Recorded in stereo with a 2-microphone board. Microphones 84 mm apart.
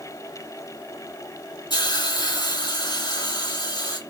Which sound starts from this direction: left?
A hiss, at 1.7 s.